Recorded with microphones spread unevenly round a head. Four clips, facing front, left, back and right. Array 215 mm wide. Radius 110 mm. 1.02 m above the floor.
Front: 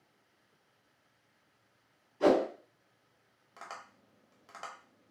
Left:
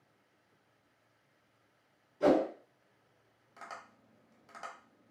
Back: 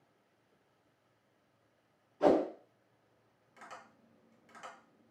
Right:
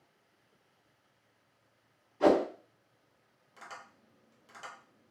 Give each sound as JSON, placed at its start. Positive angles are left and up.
{"t": 2.2, "sound": "a whoosh", "azimuth_deg": -60, "distance_m": 1.6}
{"t": 3.6, "sound": "tapping", "azimuth_deg": 20, "distance_m": 1.0}